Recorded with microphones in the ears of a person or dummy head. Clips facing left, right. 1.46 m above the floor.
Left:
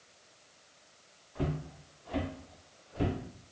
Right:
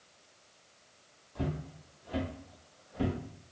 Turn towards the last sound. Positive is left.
turn(degrees=0)  # may be behind; listen again after turning